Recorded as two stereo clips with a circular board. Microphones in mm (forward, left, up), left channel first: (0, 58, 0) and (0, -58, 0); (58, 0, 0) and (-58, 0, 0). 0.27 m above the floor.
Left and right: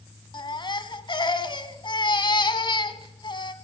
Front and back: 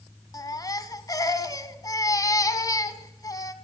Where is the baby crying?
50° left, 1.3 m.